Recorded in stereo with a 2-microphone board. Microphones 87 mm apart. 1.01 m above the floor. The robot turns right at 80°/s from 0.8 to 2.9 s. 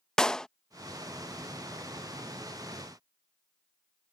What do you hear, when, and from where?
0.2 s a clap: 5° left (ahead or behind)